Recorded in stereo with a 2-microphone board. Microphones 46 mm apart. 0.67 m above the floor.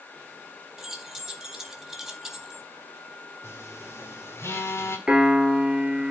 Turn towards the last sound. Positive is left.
turn(degrees=-15)  # may be behind; listen again after turning